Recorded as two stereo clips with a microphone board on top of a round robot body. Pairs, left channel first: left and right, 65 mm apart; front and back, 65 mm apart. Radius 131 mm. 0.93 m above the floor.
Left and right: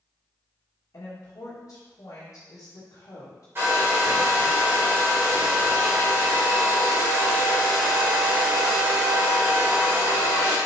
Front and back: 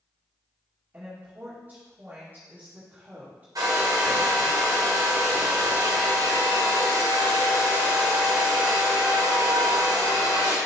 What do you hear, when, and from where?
0.9 s a woman speaking: 125° left, 1.6 m
3.5 s a hair dryer: 150° right, 2 m